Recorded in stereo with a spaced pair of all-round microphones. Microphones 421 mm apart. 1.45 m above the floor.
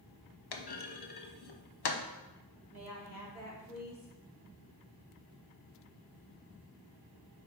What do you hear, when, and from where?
0.5 s a clunk: 65° left (ahead or behind), 0.6 m
2.7 s a woman speaking: 55° left (ahead or behind), 2.5 m